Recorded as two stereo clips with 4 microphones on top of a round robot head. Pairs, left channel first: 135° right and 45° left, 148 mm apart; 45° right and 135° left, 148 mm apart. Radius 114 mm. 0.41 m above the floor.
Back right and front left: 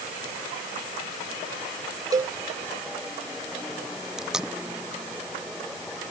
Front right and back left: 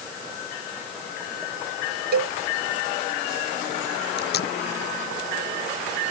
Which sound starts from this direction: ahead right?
Tape being pulled, at 4.2 s.